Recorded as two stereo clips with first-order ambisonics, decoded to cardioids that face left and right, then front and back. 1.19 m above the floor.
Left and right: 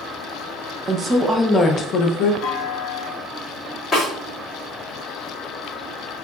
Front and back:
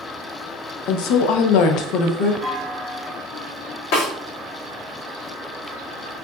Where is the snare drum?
15° left, 2.5 m.